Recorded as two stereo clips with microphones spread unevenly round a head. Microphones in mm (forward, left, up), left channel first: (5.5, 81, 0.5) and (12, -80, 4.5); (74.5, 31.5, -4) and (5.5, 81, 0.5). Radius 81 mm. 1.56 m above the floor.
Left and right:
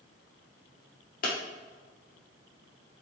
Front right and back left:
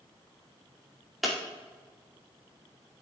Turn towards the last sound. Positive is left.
turn(degrees=55)